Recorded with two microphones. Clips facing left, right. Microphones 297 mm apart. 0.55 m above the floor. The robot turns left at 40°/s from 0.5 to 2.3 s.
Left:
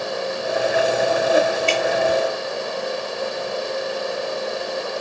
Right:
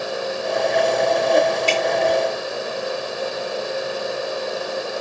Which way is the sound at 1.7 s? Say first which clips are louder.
Even; 85° right.